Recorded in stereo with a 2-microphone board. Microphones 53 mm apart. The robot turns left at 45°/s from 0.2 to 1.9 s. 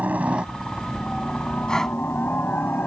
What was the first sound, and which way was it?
A helicopter, 145° right.